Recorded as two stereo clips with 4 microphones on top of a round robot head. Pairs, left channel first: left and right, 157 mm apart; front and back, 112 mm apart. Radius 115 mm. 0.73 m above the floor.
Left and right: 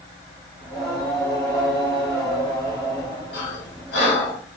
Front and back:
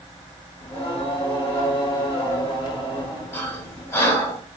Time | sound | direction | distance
0.6 | singing | 30° left | 2 m
3.3 | breathing | 60° left | 1.5 m